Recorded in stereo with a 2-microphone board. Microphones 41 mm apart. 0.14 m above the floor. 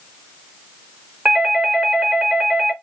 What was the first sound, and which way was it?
A doorbell, 10° right (ahead or behind).